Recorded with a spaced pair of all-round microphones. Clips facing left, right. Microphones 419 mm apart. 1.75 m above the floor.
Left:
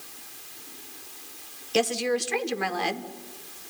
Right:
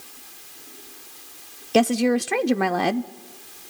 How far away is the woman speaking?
About 0.5 m.